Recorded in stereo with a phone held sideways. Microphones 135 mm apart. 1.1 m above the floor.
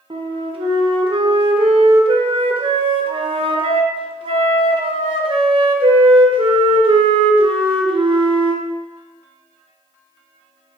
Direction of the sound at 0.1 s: 40° right (ahead or behind).